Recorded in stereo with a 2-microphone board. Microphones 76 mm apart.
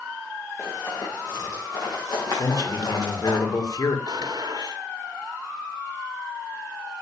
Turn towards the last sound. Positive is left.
turn(degrees=-65)  # may be behind; listen again after turning